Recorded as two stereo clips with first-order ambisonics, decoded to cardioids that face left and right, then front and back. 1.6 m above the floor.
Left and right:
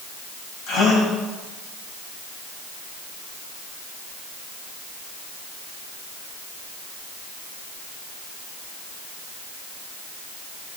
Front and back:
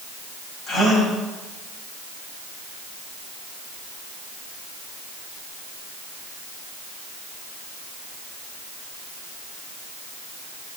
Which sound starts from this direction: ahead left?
A gasp, at 0.7 s.